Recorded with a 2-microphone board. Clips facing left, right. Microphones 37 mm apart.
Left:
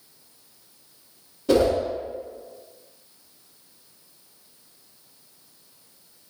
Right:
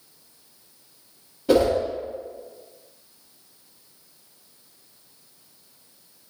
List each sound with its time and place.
1.5 s a whoosh: 10° right (ahead or behind), 1.1 m